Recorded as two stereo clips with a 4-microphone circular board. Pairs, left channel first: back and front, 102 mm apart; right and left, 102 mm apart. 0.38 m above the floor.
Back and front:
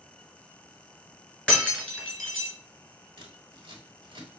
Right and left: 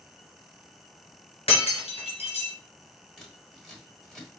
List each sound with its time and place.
1.5 s breaking glass: 100° right, 2 m
3.2 s scissors: straight ahead, 1.4 m